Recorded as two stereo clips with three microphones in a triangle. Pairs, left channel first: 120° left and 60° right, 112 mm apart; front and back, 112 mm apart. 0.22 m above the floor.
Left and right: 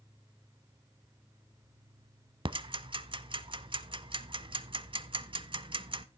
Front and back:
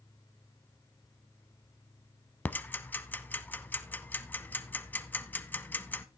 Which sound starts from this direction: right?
Ticking, at 2.5 s.